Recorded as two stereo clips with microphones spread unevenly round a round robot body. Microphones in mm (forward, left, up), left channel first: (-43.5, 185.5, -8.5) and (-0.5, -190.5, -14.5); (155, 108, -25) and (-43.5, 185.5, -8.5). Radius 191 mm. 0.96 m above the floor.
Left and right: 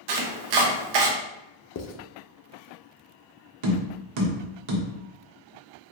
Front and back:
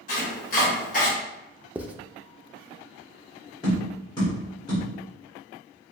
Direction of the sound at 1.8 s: 85° left.